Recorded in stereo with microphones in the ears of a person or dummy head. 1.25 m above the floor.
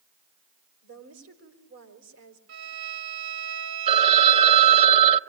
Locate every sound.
0.8 s a woman speaking: 80° right, 4 m
2.5 s a violin: 85° right, 3.5 m
3.9 s a phone ringing: 35° right (ahead or behind), 0.7 m